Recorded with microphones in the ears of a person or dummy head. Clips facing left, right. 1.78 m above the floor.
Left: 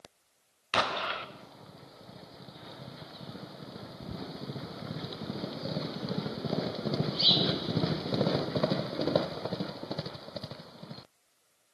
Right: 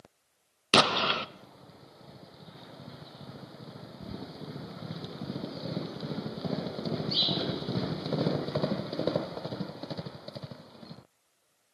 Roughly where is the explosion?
Right.